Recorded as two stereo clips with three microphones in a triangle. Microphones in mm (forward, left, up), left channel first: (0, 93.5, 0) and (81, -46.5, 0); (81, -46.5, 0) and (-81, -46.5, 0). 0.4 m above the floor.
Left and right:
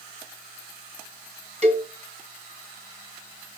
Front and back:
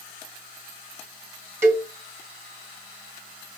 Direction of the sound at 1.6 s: 105° right.